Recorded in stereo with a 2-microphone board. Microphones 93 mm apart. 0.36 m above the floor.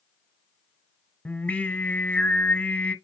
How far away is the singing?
About 0.8 m.